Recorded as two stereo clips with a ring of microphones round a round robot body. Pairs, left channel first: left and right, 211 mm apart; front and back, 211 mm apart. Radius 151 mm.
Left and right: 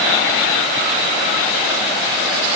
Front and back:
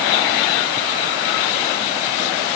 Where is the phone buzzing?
No phone buzzing in this recording.